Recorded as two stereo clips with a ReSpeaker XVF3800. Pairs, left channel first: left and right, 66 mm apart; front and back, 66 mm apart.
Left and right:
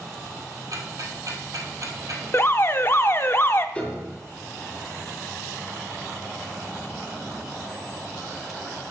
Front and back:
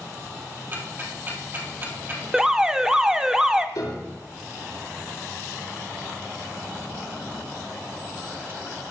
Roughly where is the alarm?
Left.